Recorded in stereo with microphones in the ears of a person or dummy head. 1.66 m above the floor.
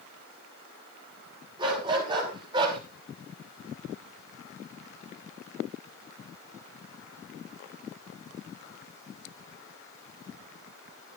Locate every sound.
1.6 s a dog barking: 30° right (ahead or behind), 6.5 m